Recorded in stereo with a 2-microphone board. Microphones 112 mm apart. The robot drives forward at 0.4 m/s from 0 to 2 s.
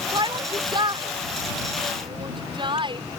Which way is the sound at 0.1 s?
40° right (ahead or behind).